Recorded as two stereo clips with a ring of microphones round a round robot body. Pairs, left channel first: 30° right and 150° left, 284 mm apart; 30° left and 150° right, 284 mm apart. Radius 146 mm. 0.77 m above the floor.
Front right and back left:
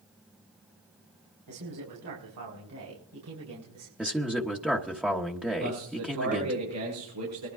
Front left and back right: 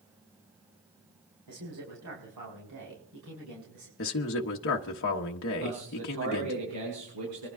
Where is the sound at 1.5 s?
Straight behind, 5.5 m; by 3.9 s 170° right, 7.5 m.